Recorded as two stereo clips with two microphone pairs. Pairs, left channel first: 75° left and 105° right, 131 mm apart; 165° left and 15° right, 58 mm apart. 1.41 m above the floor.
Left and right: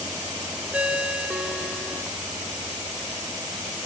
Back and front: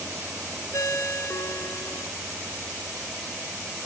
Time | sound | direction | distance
0.7 | a ringtone | 175° left | 1.8 m